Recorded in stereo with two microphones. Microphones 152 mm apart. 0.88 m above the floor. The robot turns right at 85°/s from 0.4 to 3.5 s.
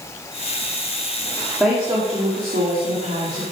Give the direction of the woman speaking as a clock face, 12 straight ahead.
6 o'clock.